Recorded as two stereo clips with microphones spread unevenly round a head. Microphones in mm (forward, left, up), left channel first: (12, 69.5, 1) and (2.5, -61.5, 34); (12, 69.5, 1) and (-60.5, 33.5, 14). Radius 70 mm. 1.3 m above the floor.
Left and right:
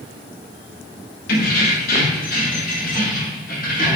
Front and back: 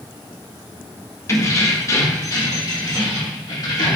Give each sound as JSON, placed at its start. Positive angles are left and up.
{"t": 1.3, "sound": "keys jangling", "azimuth_deg": 80, "distance_m": 1.7}